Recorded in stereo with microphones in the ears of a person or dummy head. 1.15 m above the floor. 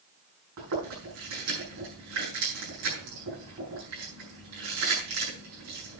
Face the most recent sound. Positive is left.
turn(degrees=-80)